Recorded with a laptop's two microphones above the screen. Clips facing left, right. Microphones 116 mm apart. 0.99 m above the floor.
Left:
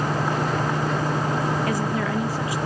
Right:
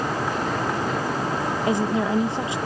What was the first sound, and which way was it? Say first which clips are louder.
A woman speaking: right 2 dB; 25° right (ahead or behind).